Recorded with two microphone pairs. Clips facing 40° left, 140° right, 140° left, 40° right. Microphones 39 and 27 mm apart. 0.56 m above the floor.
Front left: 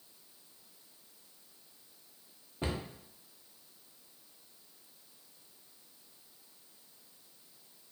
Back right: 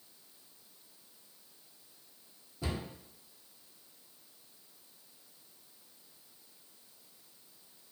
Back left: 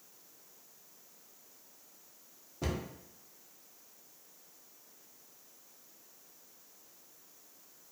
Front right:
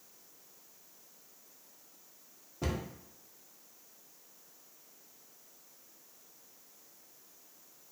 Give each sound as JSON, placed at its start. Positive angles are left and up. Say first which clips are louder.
{"t": 2.6, "sound": "a cupboard door", "louder": "front left 2 dB, even", "azimuth_deg": 50, "distance_m": 0.5}